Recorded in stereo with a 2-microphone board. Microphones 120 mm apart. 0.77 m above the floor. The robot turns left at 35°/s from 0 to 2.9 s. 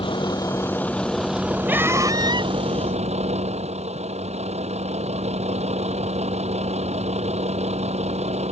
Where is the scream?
15° right (ahead or behind); by 2.5 s 40° right (ahead or behind).